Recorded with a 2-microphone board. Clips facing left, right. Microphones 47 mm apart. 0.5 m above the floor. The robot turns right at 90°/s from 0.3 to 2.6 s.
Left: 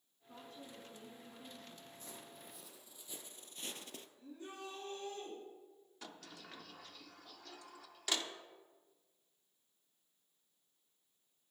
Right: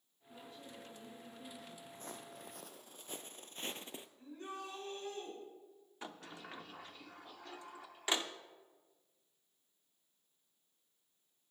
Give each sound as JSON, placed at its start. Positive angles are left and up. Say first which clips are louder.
{"t": 0.3, "sound": "a woman speaking", "louder": "even", "azimuth_deg": 75, "distance_m": 4.5}
{"t": 1.9, "sound": "footsteps", "louder": "right 4 dB", "side_deg": -45, "distance_m": 1.2}
{"t": 4.2, "sound": "a shout", "louder": "right 3 dB", "side_deg": -60, "distance_m": 5.5}
{"t": 6.0, "sound": "a sliding door", "louder": "right 4 dB", "side_deg": -25, "distance_m": 0.6}